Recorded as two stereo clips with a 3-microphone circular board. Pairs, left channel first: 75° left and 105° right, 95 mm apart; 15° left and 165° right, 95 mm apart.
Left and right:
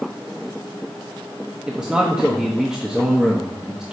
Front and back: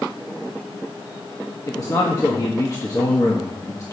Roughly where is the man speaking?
Ahead right.